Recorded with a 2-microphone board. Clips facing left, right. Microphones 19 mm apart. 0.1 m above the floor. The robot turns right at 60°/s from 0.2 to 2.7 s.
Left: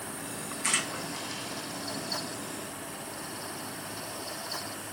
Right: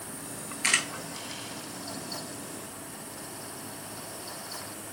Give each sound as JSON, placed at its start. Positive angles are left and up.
{"t": 0.6, "sound": "a camera shutter", "side_deg": -45, "distance_m": 0.6}